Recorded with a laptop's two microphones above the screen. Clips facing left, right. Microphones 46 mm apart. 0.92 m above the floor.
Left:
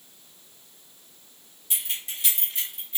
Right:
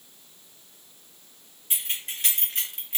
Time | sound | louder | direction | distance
1.7 | keys jangling | right 1 dB | 35° right (ahead or behind) | 1.2 m